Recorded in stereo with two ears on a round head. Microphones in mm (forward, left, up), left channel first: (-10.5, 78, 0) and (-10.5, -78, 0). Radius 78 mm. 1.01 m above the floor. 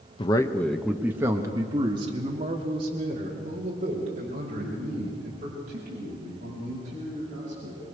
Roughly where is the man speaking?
Left.